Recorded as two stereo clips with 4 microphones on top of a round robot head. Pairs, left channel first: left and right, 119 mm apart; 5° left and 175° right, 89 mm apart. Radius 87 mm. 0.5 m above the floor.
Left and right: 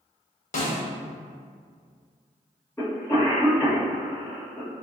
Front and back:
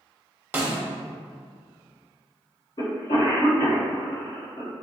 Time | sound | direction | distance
0.5 | a snare drum | 115° left | 0.8 m
2.8 | a cough | 15° left | 2.0 m